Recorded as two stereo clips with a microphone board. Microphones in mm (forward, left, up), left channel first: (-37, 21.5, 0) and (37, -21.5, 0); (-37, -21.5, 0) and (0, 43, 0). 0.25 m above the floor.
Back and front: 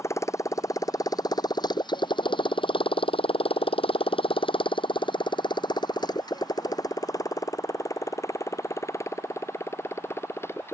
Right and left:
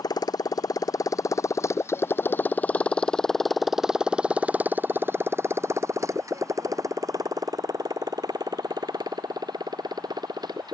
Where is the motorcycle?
150° right; by 10.8 s 85° left.